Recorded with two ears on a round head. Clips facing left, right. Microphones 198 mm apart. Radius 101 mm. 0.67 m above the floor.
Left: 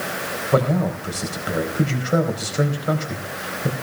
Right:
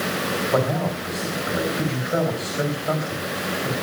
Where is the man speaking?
35° left (ahead or behind), 4.5 m.